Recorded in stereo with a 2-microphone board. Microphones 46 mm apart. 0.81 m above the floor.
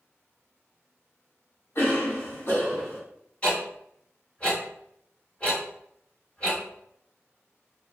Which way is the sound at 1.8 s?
55° left (ahead or behind).